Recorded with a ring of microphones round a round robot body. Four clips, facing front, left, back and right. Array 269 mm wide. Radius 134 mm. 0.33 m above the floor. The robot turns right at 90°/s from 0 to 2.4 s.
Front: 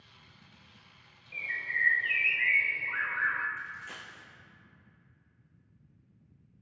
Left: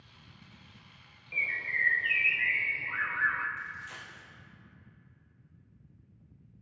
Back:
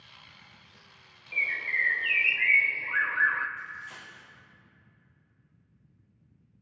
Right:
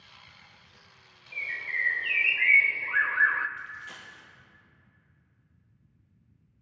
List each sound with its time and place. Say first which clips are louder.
1.3 s a bird: left 1 dB, back 3 dB; 145° left, 0.7 m; by 3.5 s 115° right, 0.7 m
3.6 s a dropped coin: even, back 1 dB; 30° right, 4 m